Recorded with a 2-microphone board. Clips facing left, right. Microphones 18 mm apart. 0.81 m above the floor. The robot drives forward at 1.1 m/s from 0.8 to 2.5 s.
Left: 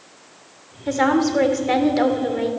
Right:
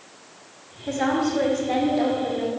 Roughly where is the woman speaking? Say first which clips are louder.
Left 5 dB; left.